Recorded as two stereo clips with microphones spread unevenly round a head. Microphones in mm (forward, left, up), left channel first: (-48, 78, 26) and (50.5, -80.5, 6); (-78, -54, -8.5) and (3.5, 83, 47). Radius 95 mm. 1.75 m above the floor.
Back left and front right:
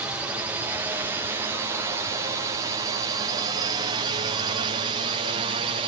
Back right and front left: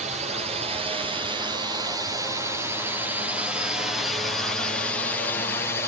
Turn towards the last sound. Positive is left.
turn(degrees=-95)